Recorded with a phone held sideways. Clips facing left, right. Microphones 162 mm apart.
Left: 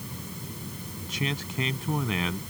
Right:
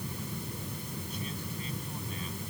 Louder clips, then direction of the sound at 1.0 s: Left 6 dB; 85° left.